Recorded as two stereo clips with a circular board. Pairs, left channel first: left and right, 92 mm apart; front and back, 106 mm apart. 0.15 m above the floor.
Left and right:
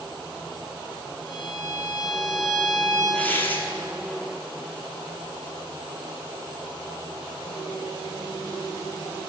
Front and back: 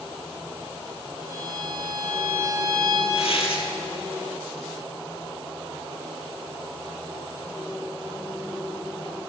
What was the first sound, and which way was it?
A violin, 55° right.